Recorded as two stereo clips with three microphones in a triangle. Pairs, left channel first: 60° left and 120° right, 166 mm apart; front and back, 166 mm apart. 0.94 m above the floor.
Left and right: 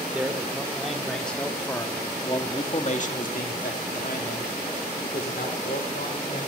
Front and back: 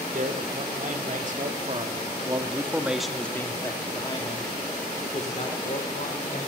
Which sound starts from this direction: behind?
A man speaking, at 0.1 s.